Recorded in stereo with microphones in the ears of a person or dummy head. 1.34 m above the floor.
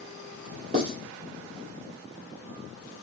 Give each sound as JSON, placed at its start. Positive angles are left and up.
{"t": 0.7, "sound": "writing", "side_deg": -45, "distance_m": 2.0}